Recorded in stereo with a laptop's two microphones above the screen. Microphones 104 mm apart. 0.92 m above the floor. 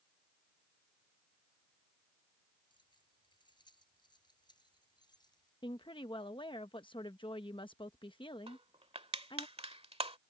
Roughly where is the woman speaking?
Left.